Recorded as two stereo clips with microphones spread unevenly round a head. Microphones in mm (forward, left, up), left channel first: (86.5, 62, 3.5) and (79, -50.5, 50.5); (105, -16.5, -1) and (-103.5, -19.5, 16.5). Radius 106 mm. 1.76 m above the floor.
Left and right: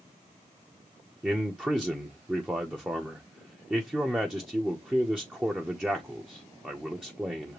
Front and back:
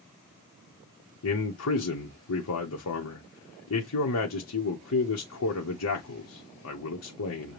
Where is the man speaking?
20° right, 1.0 m.